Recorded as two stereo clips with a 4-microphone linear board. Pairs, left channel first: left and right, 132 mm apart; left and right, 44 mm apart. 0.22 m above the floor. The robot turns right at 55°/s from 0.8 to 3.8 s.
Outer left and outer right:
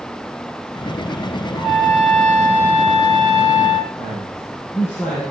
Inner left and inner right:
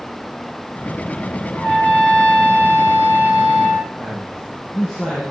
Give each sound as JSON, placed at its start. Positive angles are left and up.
{"t": 1.5, "sound": "a trumpet", "azimuth_deg": -135, "distance_m": 5.0}
{"t": 4.0, "sound": "a man speaking", "side_deg": 5, "distance_m": 6.5}